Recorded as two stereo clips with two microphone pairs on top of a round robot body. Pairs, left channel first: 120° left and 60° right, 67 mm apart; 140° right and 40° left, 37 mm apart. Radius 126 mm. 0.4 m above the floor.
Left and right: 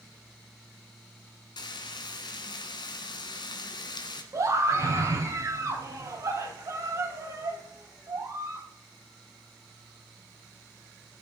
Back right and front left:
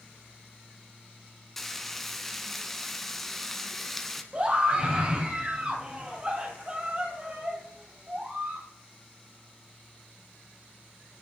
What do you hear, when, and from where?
1.6 s frying: 130° left, 1.1 m
4.3 s a scream: 25° right, 4.5 m